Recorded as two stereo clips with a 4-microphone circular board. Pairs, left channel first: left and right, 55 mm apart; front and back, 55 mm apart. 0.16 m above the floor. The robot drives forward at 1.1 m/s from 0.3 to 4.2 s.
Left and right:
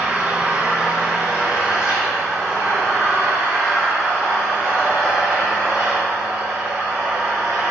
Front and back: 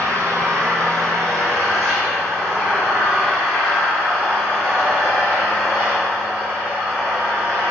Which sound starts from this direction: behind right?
An engine running, at 0.0 s.